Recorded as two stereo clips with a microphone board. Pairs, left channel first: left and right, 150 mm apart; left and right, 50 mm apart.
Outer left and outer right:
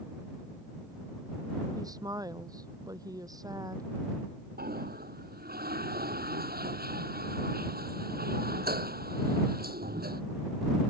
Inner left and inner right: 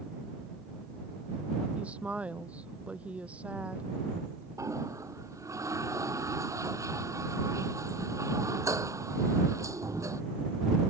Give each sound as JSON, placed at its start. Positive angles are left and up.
{"t": 1.8, "sound": "a woman speaking", "side_deg": -25}
{"t": 4.6, "sound": "a toilet flushing", "side_deg": -80}